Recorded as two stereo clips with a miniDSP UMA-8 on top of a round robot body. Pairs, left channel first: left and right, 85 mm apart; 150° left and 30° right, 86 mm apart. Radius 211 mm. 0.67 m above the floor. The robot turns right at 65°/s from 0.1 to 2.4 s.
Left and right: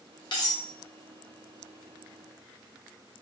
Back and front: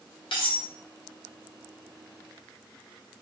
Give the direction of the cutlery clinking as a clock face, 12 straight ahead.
8 o'clock.